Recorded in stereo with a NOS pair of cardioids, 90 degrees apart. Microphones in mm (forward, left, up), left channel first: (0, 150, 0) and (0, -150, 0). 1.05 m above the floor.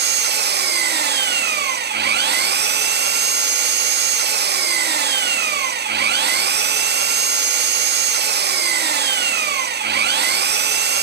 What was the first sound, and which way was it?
An engine running, 35° right.